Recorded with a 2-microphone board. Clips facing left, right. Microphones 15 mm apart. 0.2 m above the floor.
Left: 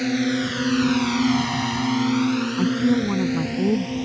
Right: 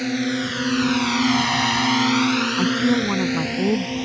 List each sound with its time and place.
0.0 s a drone: centre (ahead or behind); by 4.0 s 25° right (ahead or behind)
2.6 s a woman speaking: 25° right (ahead or behind)